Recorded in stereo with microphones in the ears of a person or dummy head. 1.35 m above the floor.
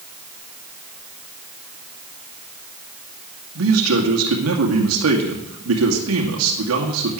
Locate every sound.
3.5 s a man speaking: 85° right, 2 m